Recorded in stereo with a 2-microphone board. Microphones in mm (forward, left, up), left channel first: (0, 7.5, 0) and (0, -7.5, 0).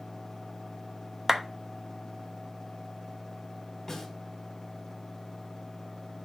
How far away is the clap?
About 0.9 m.